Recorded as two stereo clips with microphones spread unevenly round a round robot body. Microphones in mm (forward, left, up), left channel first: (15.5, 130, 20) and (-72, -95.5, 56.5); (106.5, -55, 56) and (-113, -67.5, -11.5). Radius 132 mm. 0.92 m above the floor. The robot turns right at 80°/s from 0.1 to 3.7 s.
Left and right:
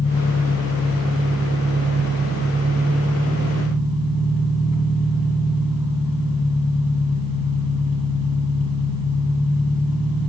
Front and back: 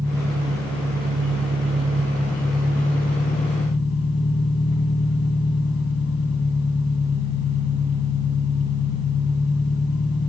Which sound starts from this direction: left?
An engine running, at 0.0 s.